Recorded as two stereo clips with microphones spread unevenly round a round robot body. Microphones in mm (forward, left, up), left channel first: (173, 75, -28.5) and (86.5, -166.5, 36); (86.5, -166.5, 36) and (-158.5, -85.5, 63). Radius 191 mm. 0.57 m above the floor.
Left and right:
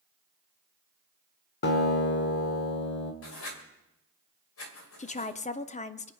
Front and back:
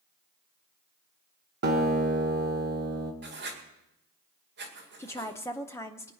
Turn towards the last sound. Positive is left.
turn(degrees=50)